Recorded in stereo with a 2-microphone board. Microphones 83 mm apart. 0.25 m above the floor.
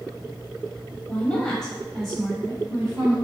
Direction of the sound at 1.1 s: 20° left (ahead or behind).